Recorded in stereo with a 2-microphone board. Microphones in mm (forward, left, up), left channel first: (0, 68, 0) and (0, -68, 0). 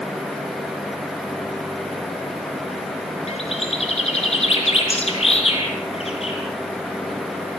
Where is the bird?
50° left (ahead or behind), 5 m.